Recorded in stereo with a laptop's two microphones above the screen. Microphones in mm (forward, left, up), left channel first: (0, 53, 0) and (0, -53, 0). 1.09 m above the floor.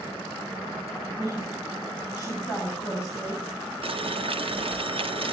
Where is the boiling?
60° right (ahead or behind), 0.7 m.